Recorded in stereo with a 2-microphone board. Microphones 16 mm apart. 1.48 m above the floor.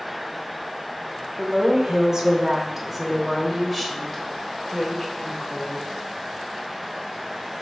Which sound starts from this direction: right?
A woman speaking, at 1.4 s.